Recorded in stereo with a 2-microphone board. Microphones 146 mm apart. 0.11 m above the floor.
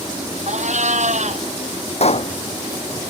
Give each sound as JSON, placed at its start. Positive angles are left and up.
{"t": 0.5, "sound": "a cat meowing", "side_deg": -60}
{"t": 2.0, "sound": "a pop", "side_deg": 50}